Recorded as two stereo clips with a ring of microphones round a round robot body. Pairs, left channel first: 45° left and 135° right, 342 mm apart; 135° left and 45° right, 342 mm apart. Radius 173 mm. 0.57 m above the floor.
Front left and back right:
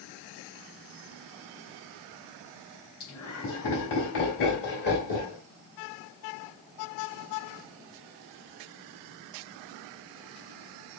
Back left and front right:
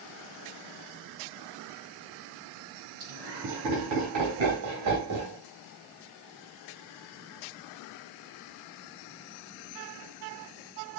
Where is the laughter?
5° right, 3.5 m; by 5.4 s 20° right, 1.4 m.